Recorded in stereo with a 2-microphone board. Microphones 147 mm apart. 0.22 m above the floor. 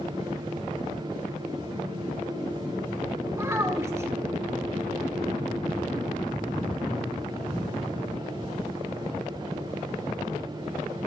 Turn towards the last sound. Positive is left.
turn(degrees=-20)  # may be behind; listen again after turning